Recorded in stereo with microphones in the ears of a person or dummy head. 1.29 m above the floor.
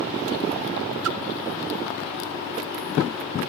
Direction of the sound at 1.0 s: 75° right (ahead or behind).